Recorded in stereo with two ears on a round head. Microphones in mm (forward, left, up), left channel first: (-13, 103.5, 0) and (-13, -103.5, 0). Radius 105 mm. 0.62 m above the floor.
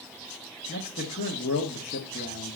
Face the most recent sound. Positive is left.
turn(degrees=40)  # may be behind; listen again after turning